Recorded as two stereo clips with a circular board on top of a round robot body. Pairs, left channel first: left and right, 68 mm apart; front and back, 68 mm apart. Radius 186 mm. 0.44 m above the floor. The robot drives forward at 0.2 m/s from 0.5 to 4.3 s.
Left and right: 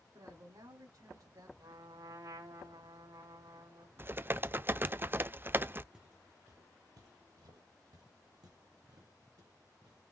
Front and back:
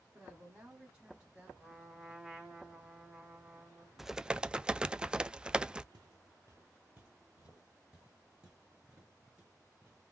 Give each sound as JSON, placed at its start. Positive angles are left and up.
{"t": 0.1, "sound": "a woman speaking", "azimuth_deg": -95, "distance_m": 2.5}
{"t": 1.6, "sound": "a trumpet", "azimuth_deg": -95, "distance_m": 1.7}
{"t": 4.0, "sound": "typing on a keyboard", "azimuth_deg": -95, "distance_m": 0.5}
{"t": 5.9, "sound": "footsteps", "azimuth_deg": -165, "distance_m": 0.6}